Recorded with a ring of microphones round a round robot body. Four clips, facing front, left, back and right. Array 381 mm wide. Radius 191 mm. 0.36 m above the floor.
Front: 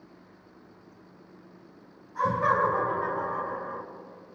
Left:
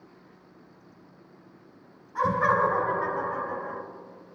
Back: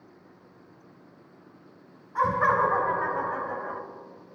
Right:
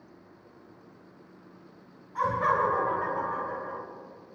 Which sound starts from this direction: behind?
Laughter, at 2.1 s.